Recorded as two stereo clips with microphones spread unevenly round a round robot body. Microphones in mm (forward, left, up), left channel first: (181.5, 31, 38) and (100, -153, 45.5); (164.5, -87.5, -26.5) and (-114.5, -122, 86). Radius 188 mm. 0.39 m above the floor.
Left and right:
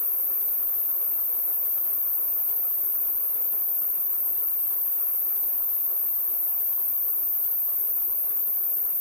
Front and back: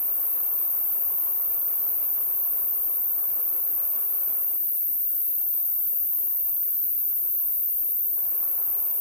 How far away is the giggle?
No giggle in this recording.